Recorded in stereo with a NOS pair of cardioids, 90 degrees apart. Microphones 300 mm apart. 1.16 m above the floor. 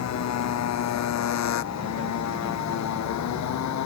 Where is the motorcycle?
70° left; by 3.9 s 75° left.